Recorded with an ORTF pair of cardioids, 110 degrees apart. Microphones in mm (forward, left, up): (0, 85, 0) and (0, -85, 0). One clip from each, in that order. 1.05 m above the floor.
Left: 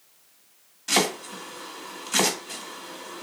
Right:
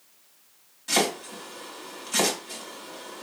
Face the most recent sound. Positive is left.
turn(degrees=15)